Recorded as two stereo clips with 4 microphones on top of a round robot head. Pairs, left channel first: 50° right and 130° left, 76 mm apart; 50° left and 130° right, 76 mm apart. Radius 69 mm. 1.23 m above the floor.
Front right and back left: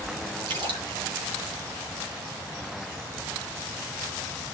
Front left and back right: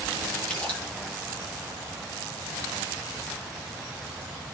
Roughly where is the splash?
Behind left.